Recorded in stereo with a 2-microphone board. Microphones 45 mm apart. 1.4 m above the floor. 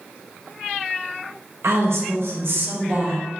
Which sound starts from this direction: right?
A woman speaking, at 1.6 s.